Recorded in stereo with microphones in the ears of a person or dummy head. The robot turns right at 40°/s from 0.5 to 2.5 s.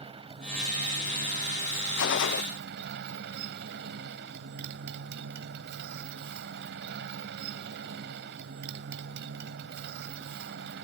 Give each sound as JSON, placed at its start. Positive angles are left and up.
{"t": 0.0, "sound": "a motorcycle", "azimuth_deg": -150}
{"t": 2.0, "sound": "a gunshot", "side_deg": 70}